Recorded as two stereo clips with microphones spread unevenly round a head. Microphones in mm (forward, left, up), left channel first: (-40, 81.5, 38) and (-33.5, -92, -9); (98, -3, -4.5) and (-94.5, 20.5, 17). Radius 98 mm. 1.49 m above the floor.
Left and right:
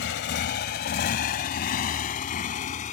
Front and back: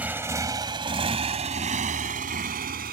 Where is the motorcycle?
95° left; by 2.9 s 130° left.